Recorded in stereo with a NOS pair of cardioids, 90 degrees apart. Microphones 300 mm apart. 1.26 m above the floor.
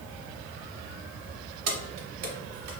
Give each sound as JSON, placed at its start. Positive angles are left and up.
{"t": 1.7, "sound": "keys jangling", "azimuth_deg": -55, "distance_m": 0.9}